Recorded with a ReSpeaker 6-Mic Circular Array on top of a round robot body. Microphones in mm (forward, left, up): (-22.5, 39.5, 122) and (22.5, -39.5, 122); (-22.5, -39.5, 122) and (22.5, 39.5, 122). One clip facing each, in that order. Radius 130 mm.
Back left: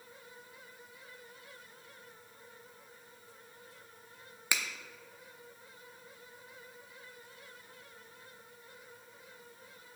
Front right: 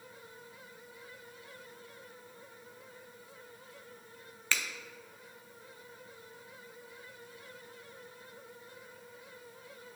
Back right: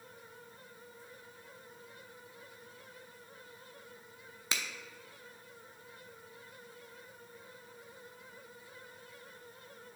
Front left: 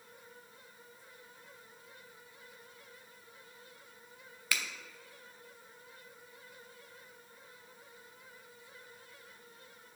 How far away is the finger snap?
About 0.6 m.